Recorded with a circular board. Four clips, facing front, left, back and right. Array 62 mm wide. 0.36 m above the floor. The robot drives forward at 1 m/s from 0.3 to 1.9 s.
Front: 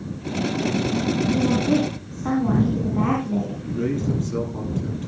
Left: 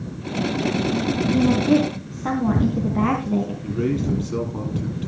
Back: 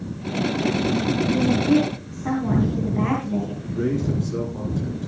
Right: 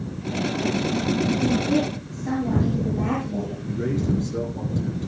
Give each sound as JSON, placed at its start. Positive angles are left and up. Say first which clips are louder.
{"t": 1.3, "sound": "a woman speaking", "louder": "left 8 dB, back 2 dB", "azimuth_deg": 70, "distance_m": 4.0}
{"t": 3.6, "sound": "a man speaking", "louder": "left 2 dB, even", "azimuth_deg": 70, "distance_m": 9.0}